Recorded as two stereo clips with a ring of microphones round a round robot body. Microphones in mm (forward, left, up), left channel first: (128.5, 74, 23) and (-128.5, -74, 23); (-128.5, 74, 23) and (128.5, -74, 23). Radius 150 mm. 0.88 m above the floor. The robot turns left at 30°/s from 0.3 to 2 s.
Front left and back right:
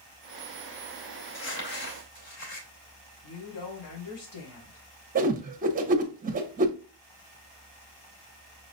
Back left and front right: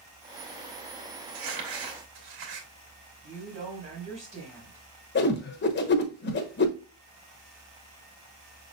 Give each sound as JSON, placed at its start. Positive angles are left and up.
{"t": 1.3, "sound": "crumpling", "azimuth_deg": 0, "distance_m": 2.0}
{"t": 3.2, "sound": "a woman speaking", "azimuth_deg": 35, "distance_m": 3.0}
{"t": 5.2, "sound": "a whoosh", "azimuth_deg": 170, "distance_m": 0.9}